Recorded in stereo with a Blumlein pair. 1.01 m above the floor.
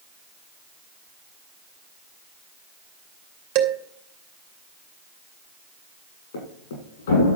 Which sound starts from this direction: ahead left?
A thud, at 6.3 s.